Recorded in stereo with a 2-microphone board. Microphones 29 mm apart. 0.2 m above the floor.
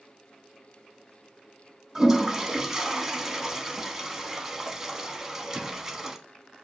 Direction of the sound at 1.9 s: 10° right (ahead or behind).